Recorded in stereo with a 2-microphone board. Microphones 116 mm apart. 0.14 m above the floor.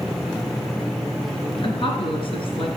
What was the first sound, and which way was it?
A woman speaking, 50° left (ahead or behind).